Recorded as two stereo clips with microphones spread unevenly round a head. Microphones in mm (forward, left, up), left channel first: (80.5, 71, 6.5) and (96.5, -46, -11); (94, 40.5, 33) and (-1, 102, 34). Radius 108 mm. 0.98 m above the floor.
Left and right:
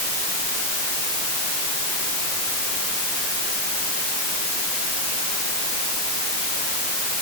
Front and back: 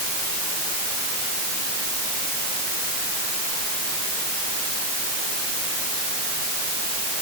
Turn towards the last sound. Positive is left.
No sound to turn to.